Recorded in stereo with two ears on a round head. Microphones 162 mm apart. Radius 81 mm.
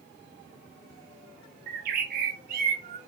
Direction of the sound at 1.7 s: 50° right (ahead or behind).